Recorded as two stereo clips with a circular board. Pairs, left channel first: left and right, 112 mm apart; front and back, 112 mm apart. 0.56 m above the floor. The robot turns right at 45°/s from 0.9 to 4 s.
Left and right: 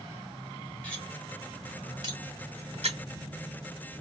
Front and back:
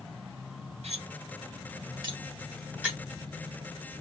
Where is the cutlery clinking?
170° left, 1.5 m; by 3.0 s 95° right, 1.5 m.